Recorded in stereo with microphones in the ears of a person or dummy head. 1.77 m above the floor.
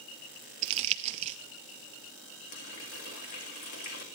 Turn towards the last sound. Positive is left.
turn(degrees=50)  # may be behind; listen again after turning